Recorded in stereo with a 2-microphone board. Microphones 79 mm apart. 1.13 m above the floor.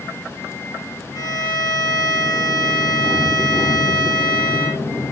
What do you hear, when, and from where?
1.1 s a violin: 45° left (ahead or behind), 1.1 m